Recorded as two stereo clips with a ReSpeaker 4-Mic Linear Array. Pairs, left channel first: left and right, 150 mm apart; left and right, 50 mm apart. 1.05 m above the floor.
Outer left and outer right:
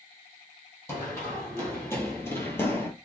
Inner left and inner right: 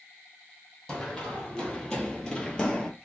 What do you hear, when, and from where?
0.9 s running footsteps: 15° left (ahead or behind), 1.7 m